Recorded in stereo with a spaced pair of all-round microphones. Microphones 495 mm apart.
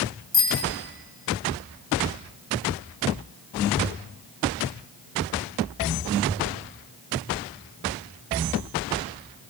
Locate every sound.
0.3 s a bicycle bell: 75° right (ahead or behind), 6.5 m